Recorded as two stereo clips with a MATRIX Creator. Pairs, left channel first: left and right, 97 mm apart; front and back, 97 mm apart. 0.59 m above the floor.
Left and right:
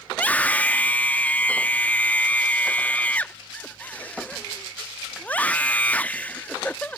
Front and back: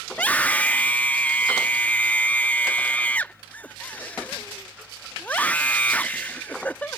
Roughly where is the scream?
Ahead left.